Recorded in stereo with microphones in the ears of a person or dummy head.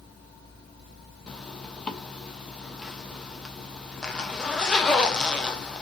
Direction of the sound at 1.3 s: 5° left (ahead or behind).